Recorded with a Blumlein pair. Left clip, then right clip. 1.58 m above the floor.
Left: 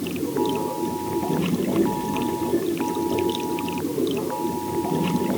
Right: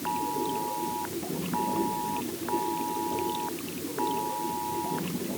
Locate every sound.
0.0 s running water: 25° left